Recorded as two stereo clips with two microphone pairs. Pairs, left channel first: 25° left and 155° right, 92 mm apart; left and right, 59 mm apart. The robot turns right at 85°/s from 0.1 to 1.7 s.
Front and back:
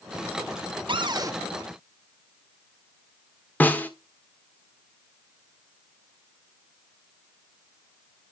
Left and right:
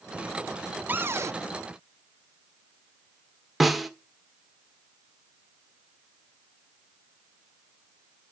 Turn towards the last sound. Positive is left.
turn(degrees=-10)